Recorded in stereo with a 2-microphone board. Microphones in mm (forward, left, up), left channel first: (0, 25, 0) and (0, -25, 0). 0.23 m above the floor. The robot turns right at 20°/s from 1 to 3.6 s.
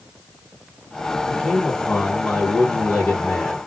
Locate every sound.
1.3 s a man speaking: centre (ahead or behind), 1.4 m; by 3.6 s 20° left (ahead or behind), 1.4 m